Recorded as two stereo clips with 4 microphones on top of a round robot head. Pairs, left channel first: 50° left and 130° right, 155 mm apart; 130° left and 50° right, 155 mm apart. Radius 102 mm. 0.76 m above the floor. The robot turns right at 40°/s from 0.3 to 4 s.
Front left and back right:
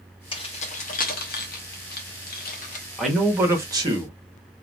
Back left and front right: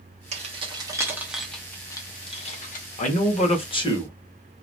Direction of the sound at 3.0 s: 140° left.